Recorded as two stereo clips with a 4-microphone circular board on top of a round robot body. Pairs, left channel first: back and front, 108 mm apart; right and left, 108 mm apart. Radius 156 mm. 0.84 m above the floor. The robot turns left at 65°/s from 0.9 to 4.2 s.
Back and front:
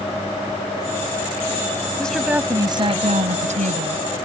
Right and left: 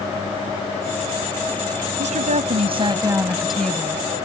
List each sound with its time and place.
2.0 s a woman speaking: 100° left; by 4.0 s 30° right